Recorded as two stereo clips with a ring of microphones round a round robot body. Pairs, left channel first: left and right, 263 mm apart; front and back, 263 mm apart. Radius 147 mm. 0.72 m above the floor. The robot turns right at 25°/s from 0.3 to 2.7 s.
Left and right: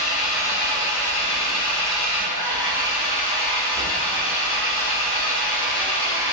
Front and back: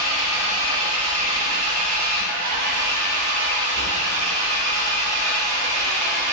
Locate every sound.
0.0 s an engine running: 140° left, 1.5 m; by 6.3 s 160° right, 1.5 m